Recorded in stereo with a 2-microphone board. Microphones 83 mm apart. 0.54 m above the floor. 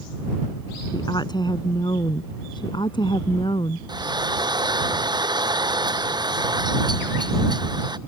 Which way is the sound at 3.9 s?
55° right (ahead or behind).